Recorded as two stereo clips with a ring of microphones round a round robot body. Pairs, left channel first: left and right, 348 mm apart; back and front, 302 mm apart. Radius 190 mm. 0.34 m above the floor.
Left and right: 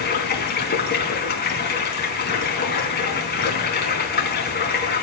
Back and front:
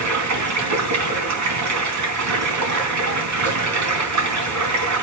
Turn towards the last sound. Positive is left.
turn(degrees=25)